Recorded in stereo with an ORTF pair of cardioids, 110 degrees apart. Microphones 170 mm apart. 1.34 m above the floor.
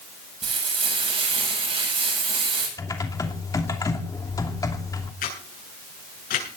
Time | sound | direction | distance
0.4 | frying | 35° right | 9.5 m
2.8 | typing on a keyboard | 20° left | 2.5 m
5.2 | a camera shutter | 55° left | 9.5 m